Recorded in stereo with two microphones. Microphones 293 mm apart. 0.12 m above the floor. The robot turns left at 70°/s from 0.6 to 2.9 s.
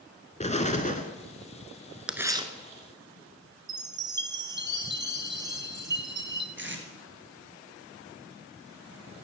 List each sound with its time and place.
0.4 s an explosion: 25° left (ahead or behind), 1.1 m
2.1 s tearing paper: 5° right, 1.0 m; by 2.5 s 35° right, 1.0 m
3.7 s a chime: 40° right (ahead or behind), 0.9 m
6.6 s tape being pulled: 40° right (ahead or behind), 1.8 m